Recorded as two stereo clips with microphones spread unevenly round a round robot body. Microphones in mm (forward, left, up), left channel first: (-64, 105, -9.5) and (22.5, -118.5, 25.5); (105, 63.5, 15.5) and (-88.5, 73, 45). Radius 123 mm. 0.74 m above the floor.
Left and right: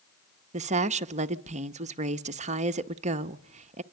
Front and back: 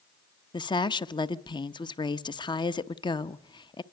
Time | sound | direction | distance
0.5 | a woman speaking | 20° right | 0.9 m